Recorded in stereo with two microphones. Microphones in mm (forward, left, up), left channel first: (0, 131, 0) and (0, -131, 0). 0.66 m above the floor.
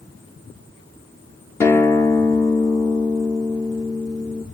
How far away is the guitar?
About 1.2 m.